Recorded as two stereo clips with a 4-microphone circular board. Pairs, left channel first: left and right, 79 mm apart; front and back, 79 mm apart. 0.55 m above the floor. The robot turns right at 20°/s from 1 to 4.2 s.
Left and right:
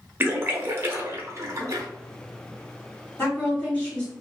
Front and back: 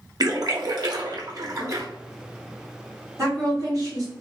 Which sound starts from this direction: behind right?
A splash, at 0.2 s.